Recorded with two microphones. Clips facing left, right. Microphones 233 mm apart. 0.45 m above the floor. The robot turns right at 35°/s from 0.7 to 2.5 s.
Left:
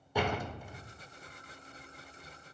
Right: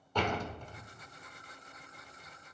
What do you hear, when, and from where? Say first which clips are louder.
0.1 s a door slam: left 1 dB; 10° left (ahead or behind), 1.1 m; by 0.8 s 5° left (ahead or behind), 1.1 m